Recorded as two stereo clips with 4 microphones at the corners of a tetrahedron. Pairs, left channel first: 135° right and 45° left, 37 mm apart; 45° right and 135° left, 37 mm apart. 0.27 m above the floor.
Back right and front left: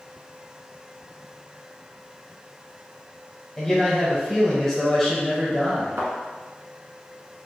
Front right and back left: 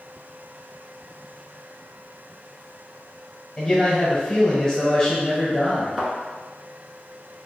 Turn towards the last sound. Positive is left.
turn(degrees=50)